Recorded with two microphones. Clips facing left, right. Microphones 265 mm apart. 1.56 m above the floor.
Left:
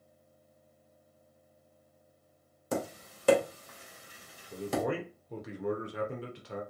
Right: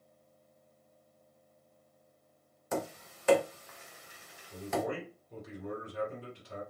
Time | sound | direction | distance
2.7 | tapping | 40° left (ahead or behind) | 0.7 m
4.5 | a man speaking | 75° left (ahead or behind) | 0.8 m